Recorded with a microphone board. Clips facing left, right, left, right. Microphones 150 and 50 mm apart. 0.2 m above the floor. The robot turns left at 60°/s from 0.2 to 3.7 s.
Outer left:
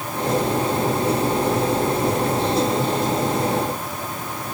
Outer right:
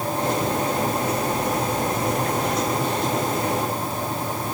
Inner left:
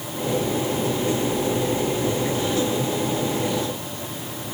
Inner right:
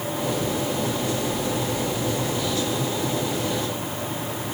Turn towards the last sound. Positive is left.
No sound to turn to.